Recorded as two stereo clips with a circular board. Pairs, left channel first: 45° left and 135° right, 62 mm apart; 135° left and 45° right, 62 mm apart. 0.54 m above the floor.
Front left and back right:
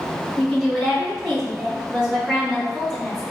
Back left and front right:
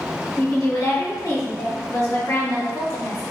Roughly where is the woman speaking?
Behind left.